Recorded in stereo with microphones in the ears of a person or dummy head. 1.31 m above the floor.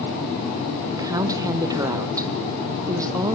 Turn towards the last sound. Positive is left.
turn(degrees=-15)  # may be behind; listen again after turning